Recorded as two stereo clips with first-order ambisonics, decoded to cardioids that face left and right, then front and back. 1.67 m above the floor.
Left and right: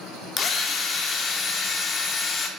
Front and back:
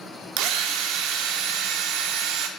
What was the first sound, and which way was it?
A drill, 150° left.